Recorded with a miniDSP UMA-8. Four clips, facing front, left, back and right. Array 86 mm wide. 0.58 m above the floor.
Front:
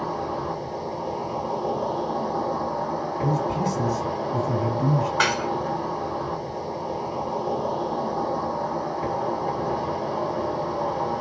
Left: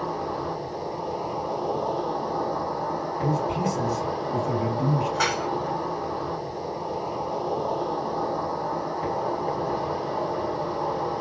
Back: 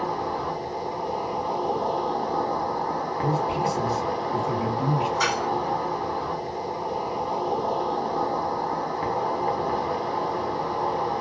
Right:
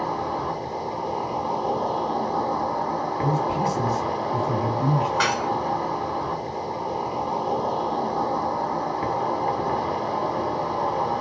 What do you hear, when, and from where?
0.0 s an insect: 125° right, 1.0 m
3.2 s a man speaking: 165° right, 1.4 m
5.2 s dishes clattering: 15° right, 1.0 m